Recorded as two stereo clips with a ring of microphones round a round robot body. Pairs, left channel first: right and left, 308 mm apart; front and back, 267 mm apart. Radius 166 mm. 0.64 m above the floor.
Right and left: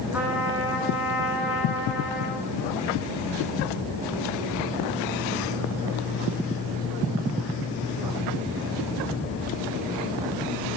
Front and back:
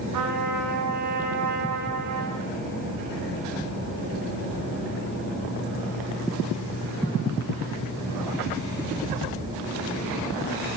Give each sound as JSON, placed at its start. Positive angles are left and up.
{"t": 0.1, "sound": "a trumpet", "azimuth_deg": 175, "distance_m": 7.5}